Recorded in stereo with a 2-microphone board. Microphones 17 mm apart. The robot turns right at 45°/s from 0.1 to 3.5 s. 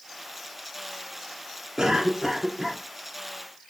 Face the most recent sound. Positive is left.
turn(degrees=40)